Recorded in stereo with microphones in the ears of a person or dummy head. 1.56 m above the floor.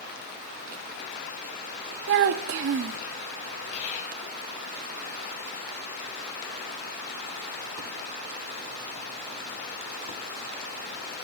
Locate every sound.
2.1 s a child speaking: 55° right (ahead or behind), 0.7 m
3.7 s whispering: 45° left (ahead or behind), 1.4 m